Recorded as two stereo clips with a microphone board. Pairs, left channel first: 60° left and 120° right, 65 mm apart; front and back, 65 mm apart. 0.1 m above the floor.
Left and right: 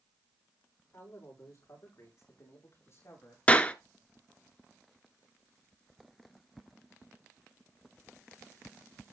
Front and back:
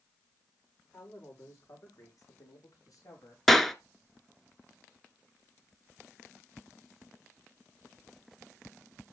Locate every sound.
0.9 s a man speaking: 30° left, 9 m; by 3.4 s 20° left, 8 m
3.5 s a clap: 80° left, 0.9 m